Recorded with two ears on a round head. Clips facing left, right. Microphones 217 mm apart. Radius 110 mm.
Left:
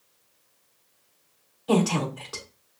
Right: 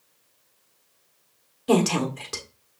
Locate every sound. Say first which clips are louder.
1.7 s a woman speaking: right 2 dB; 30° right (ahead or behind), 1.5 m